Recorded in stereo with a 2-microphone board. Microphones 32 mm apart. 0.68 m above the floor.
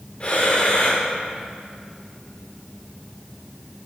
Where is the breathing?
35° left (ahead or behind), 1.5 m.